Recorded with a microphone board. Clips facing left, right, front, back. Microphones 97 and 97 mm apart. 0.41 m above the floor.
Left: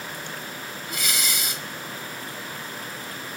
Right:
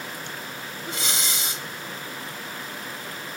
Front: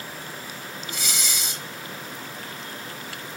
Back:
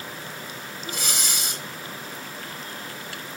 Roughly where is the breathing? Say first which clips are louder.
Even, back 2 dB; behind right.